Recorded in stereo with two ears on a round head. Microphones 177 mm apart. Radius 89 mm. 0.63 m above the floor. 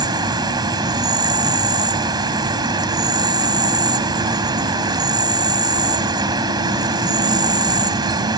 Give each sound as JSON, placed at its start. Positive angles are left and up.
{"t": 0.0, "sound": "an insect", "side_deg": -25}